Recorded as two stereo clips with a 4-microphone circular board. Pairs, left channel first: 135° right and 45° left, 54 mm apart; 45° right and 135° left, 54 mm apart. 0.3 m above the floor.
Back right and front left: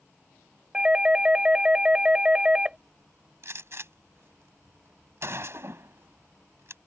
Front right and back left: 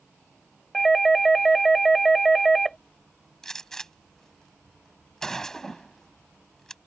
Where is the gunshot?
35° left.